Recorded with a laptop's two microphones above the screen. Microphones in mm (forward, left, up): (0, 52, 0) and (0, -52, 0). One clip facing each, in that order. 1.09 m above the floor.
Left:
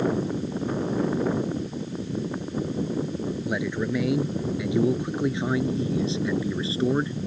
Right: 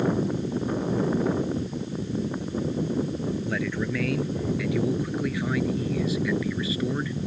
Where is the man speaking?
15° left (ahead or behind); by 7.2 s 30° left (ahead or behind).